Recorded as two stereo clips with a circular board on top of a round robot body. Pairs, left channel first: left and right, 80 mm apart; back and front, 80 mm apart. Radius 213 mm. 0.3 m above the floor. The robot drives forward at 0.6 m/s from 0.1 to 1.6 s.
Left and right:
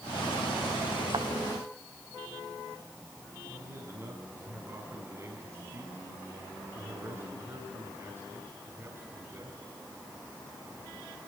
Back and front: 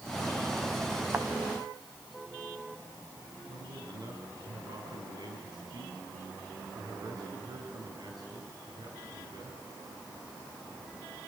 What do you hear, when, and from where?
1.1 s a thud: 65° right, 1.5 m; by 1.3 s 70° right, 1.5 m
3.5 s a man speaking: 35° right, 5 m